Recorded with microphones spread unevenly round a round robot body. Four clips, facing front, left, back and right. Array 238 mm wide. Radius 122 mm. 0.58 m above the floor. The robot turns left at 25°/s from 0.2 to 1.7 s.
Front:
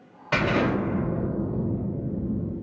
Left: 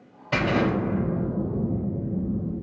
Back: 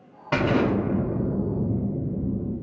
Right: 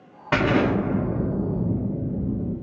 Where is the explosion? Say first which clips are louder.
Right 3 dB, back 2 dB; 100° right, 1.4 m; by 2.5 s 135° right, 1.4 m.